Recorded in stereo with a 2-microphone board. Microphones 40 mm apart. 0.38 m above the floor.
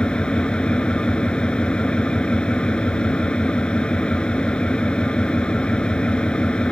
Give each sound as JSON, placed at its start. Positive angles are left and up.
{"t": 0.0, "sound": "an engine running", "side_deg": 25}